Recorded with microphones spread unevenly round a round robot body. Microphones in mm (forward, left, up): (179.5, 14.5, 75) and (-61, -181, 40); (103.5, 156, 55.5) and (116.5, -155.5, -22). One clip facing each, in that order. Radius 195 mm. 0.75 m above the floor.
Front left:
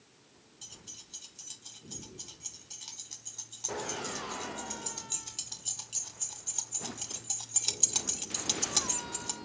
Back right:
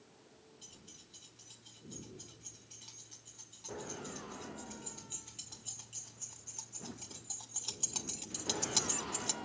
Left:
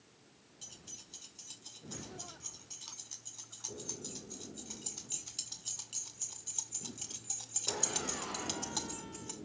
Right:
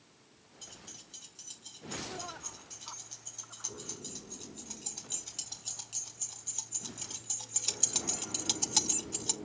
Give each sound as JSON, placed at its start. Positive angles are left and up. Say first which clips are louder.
{"t": 0.6, "sound": "keys jangling", "louder": "front left 2 dB, right 3 dB", "azimuth_deg": 15, "distance_m": 7.5}